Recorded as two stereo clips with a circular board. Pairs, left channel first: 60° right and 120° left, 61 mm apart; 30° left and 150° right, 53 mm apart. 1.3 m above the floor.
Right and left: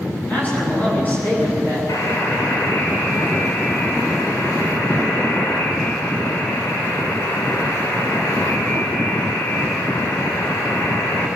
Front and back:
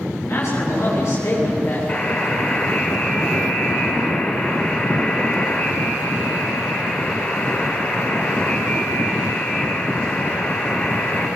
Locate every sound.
0.3 s a man speaking: 5° left, 10 m
1.9 s a buzzer: 25° right, 5.5 m